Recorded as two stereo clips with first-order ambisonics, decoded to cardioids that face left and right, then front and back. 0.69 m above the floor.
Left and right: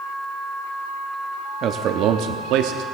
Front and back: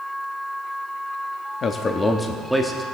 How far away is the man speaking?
About 0.7 m.